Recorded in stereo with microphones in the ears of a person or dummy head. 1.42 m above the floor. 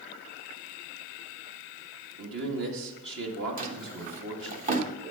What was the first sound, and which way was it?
A man speaking, 70° right (ahead or behind).